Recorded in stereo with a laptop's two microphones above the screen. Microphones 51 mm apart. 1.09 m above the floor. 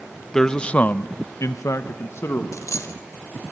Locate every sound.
0.3 s a man speaking: 10° left (ahead or behind), 0.9 m; by 2.4 s 55° left (ahead or behind), 1.1 m
2.5 s a dropped coin: 75° left (ahead or behind), 1.9 m